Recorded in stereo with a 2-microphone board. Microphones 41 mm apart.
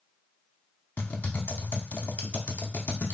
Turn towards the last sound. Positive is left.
turn(degrees=40)  # may be behind; listen again after turning